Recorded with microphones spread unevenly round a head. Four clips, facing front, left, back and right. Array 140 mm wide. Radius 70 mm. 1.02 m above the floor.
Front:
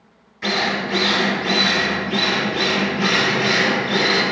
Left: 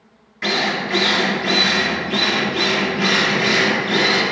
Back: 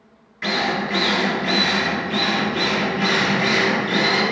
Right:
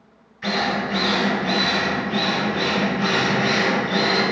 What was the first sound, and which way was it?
A drill, 100° left.